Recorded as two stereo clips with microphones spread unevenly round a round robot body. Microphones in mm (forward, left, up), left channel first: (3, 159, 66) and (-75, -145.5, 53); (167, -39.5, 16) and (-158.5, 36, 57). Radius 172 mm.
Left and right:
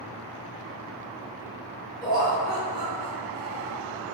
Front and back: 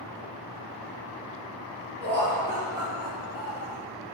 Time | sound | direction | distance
2.0 | laughter | 10° left | 1.3 m